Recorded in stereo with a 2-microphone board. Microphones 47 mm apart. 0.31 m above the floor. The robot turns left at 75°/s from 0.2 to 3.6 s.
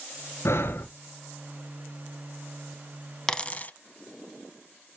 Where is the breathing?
70° left, 0.8 m; by 0.9 s 40° left, 0.8 m.